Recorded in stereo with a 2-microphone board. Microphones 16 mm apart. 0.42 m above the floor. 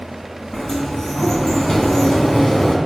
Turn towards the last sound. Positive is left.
turn(degrees=40)  # may be behind; listen again after turning